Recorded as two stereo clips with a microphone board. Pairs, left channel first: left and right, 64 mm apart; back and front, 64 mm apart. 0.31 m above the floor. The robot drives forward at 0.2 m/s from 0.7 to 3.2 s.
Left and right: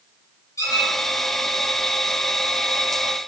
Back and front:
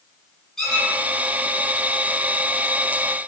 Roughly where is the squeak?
Left.